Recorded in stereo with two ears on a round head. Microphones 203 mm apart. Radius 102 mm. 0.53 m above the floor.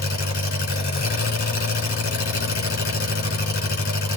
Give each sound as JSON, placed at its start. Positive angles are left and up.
{"t": 0.0, "sound": "an engine running", "side_deg": 40, "distance_m": 3.5}